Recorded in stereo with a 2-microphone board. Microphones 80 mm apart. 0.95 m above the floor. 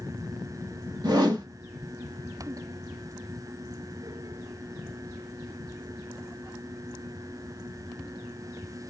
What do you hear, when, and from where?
1.0 s a whoosh: 60° right (ahead or behind), 0.6 m